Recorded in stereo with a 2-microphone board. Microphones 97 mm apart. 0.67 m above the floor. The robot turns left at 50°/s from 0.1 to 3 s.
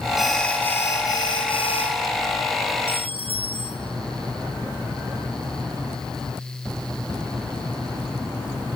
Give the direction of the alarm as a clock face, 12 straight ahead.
6 o'clock.